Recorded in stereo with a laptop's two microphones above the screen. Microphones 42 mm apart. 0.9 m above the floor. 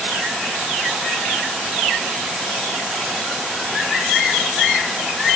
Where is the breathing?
I don't hear breathing.